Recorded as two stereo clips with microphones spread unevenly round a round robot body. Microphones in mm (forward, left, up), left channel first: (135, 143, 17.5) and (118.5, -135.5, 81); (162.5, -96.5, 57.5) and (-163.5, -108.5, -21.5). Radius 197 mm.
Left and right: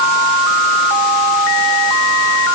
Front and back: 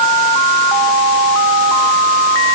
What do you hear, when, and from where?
Only background noise.